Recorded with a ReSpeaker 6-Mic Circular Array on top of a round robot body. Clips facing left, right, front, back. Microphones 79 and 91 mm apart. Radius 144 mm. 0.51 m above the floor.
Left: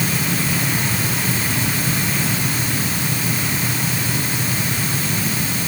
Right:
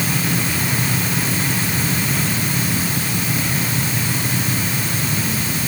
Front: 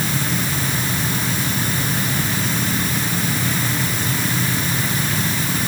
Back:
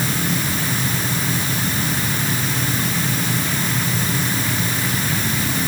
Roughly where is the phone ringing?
No phone ringing in this recording.